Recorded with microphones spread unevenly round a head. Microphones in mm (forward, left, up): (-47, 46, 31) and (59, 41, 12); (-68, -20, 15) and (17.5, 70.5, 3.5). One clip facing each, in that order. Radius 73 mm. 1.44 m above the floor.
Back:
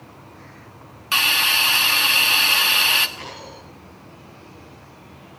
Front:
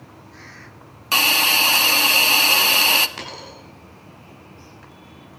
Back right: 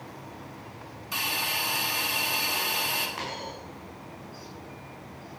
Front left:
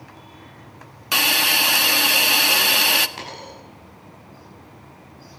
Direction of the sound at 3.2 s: 20° right.